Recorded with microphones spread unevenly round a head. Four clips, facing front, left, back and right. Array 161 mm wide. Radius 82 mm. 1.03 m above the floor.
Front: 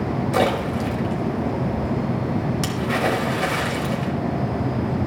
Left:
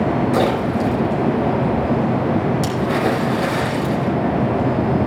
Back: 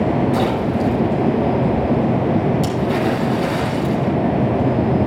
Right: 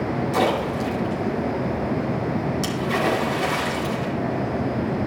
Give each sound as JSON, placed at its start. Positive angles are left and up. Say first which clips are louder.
{"t": 0.3, "sound": "a splash", "louder": "left 4 dB, back 3 dB", "azimuth_deg": 35, "distance_m": 5.0}